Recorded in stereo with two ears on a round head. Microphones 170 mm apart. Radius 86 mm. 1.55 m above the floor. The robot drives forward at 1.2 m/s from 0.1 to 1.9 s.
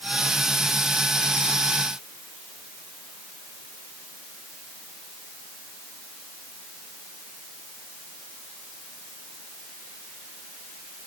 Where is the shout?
No shout in this recording.